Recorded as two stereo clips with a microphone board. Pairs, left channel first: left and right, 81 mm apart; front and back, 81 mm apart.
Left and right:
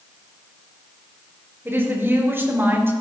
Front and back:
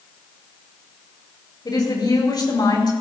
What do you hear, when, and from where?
1.6 s a woman speaking: 30° right, 5 m